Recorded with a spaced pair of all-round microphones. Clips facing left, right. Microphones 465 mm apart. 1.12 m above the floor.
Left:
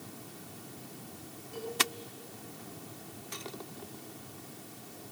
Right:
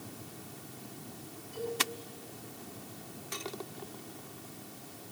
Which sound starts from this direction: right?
A cowbell, at 1.5 s.